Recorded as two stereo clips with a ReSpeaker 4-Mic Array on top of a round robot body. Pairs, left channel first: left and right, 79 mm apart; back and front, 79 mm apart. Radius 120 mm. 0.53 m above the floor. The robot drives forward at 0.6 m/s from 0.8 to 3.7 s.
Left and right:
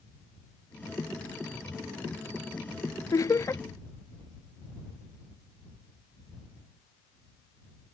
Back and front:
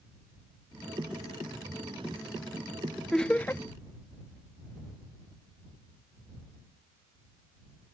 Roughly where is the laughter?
Left.